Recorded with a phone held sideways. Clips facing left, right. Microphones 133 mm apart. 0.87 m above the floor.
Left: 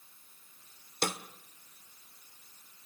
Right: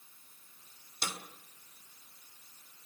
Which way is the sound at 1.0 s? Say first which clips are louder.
Left 7 dB; 60° left (ahead or behind).